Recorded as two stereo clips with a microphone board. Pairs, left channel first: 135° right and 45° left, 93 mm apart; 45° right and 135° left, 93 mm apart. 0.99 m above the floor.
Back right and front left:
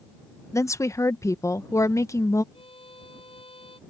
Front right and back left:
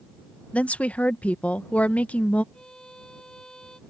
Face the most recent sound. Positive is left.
turn(degrees=-125)